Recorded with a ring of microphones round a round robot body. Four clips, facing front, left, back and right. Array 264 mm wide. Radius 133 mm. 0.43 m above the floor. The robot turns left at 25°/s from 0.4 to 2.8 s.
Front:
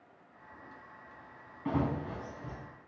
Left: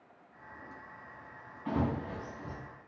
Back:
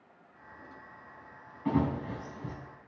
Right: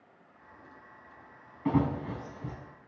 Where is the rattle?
No rattle in this recording.